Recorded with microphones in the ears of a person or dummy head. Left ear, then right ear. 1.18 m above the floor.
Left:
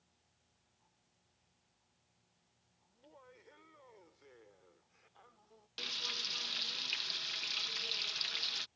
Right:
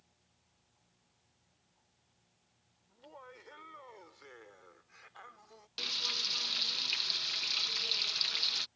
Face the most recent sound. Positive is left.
turn(degrees=5)  # may be behind; listen again after turning